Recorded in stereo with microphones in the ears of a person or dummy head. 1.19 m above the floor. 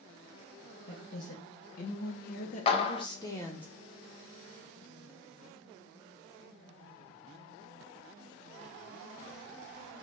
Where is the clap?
30° left (ahead or behind), 0.6 m.